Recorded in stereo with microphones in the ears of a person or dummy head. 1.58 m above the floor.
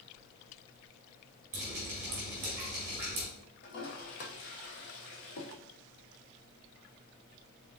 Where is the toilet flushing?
55° left (ahead or behind), 0.9 m.